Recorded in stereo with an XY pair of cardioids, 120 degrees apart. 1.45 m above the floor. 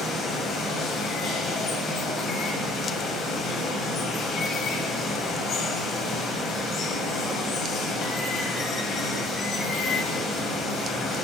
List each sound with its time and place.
0.0 s running water: 55° left, 0.9 m